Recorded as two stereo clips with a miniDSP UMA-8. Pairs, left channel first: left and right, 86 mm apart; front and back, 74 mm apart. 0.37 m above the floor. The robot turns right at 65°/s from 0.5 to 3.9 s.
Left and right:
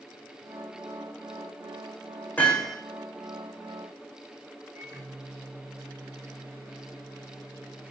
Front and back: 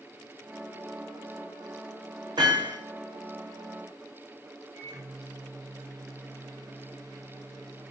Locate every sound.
2.4 s hammering: 160° left, 6.5 m; by 2.8 s 175° right, 6.5 m
4.8 s a microwave: 140° right, 4.5 m